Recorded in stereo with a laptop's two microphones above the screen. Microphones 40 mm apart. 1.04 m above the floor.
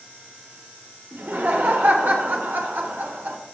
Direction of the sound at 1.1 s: 60° right (ahead or behind).